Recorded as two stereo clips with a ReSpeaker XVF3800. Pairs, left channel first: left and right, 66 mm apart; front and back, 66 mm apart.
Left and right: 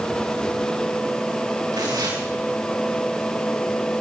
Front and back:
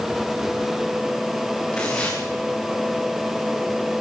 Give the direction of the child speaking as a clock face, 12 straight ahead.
No child speaking in this recording.